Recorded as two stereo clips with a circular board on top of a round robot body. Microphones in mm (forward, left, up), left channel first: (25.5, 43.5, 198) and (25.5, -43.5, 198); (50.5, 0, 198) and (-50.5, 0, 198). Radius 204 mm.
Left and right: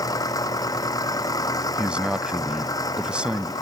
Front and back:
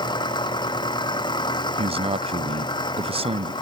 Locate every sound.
0.0 s an engine running: 45° left
1.8 s a man speaking: 170° right